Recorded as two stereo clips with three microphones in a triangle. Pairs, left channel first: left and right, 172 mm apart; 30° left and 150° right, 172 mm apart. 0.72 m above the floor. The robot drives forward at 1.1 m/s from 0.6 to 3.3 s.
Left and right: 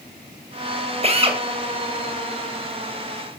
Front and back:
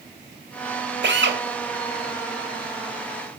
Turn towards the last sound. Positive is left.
turn(degrees=-160)